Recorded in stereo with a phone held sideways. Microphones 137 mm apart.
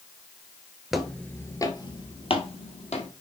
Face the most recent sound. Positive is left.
turn(degrees=60)  # may be behind; listen again after turning